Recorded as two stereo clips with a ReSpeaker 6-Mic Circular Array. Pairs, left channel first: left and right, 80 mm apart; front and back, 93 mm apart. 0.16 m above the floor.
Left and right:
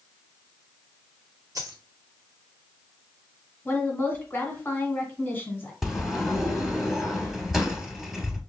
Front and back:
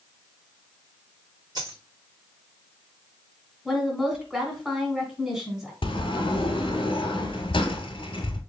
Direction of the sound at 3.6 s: 100° left.